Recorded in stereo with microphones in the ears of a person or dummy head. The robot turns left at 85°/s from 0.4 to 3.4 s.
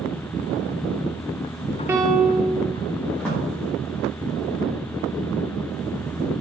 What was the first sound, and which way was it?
A piano, 15° right.